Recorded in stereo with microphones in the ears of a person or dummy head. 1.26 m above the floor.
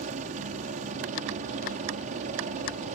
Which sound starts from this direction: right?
A helicopter, at 0.0 s.